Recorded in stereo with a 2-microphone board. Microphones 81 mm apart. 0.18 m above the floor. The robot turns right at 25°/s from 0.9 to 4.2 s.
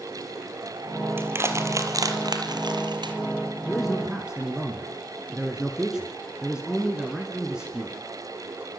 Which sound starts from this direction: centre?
A man speaking, at 3.7 s.